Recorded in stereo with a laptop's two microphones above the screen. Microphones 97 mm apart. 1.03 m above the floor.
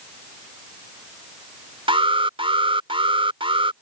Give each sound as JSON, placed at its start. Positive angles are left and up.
{"t": 1.9, "sound": "an alarm", "side_deg": -75}